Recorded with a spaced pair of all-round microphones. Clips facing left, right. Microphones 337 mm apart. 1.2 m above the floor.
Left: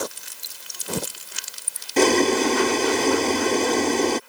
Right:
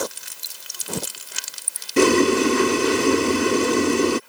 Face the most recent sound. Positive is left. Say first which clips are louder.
# right 2 dB
turn(degrees=-15)  # may be behind; listen again after turning